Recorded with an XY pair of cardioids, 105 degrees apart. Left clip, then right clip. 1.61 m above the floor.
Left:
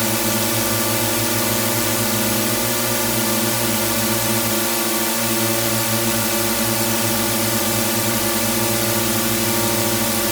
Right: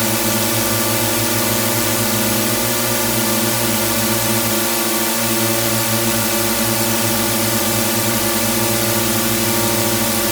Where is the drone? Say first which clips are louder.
Right 2 dB; 15° right.